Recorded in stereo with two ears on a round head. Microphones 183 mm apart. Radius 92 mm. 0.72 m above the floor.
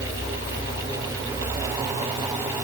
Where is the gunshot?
I don't hear a gunshot.